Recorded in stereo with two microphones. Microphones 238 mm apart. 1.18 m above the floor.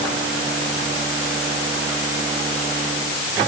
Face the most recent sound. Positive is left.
No sound to turn to.